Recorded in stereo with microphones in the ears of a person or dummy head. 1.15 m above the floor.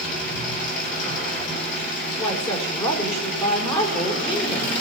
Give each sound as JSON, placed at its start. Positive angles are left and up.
{"t": 0.0, "sound": "an engine running", "side_deg": 50, "distance_m": 6.0}
{"t": 2.2, "sound": "a woman speaking", "side_deg": 30, "distance_m": 4.5}